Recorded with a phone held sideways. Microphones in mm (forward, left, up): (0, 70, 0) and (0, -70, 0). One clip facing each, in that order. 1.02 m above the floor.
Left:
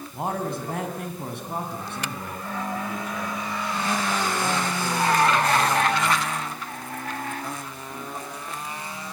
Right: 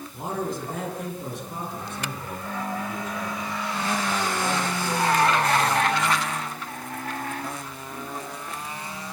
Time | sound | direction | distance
0.1 | a man speaking | 60° left (ahead or behind) | 7 m